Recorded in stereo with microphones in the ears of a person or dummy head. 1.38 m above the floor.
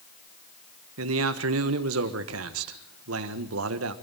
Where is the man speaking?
75° right (ahead or behind), 1.5 m.